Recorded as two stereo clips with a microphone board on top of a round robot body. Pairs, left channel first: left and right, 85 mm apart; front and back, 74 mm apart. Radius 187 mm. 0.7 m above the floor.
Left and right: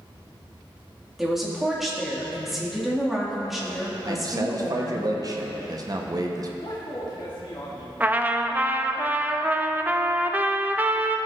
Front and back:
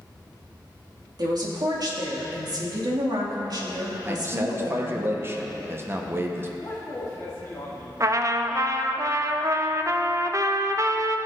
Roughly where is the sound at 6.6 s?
Ahead left.